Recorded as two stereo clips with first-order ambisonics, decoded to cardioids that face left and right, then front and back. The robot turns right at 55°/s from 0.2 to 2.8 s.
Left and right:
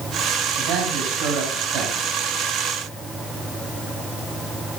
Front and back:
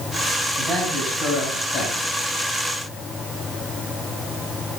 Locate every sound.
0.6 s a man speaking: 120° right, 5.5 m; by 2.1 s 35° right, 5.5 m